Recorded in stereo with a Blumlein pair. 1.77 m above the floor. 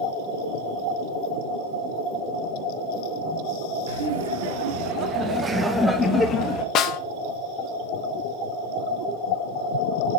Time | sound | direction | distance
3.9 | laughter | 60° right | 1.3 m
6.8 | a snare drum | 35° left | 0.5 m